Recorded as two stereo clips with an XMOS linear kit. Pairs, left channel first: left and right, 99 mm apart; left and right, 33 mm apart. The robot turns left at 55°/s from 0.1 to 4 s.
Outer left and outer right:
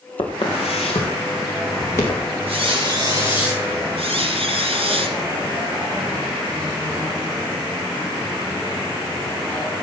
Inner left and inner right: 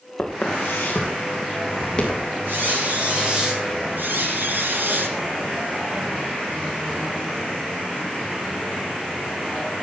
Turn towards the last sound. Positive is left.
turn(degrees=-75)  # may be behind; listen again after turning